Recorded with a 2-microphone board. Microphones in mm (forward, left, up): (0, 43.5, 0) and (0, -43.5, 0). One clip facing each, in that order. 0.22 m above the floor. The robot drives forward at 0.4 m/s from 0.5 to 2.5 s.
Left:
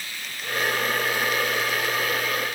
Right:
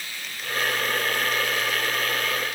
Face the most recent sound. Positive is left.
No sound to turn to.